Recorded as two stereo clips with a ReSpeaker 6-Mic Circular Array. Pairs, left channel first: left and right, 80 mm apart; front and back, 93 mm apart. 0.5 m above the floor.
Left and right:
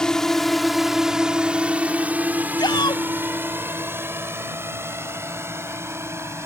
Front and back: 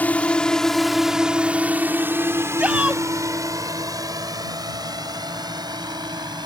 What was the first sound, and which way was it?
A drone, 25° left.